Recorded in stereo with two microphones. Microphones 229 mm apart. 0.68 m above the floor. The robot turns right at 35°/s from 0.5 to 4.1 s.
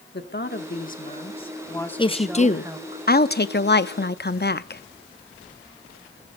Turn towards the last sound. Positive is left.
turn(degrees=100)